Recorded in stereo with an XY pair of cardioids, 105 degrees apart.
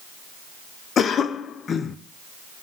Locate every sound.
1.0 s a cough: 50° left, 0.6 m